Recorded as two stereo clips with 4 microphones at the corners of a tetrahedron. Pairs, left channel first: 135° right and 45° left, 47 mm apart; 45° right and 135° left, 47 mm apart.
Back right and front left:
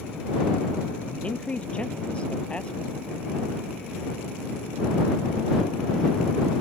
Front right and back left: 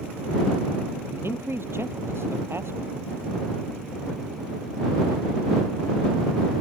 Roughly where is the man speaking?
Behind.